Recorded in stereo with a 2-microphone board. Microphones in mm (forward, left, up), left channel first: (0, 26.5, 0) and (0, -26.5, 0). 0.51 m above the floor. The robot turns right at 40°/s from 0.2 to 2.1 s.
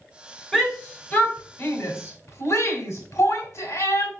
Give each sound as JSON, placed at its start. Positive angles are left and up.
{"t": 0.5, "sound": "a shout", "side_deg": 5, "distance_m": 2.5}